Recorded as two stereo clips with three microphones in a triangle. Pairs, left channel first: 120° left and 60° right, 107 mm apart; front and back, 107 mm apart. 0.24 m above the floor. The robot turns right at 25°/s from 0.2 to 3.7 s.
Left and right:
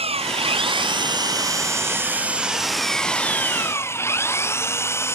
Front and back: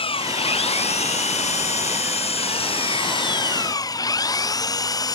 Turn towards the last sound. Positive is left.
turn(degrees=55)